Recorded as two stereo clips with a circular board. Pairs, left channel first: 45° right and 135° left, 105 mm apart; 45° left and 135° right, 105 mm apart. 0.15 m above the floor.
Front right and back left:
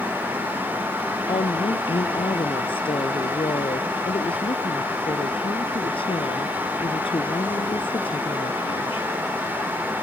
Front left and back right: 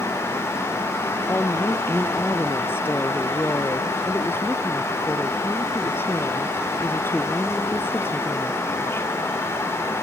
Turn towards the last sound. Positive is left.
turn(degrees=-20)